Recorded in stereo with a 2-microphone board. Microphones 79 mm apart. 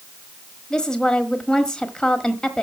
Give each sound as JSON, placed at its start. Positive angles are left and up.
{"t": 0.7, "sound": "a woman speaking", "side_deg": 10, "distance_m": 1.3}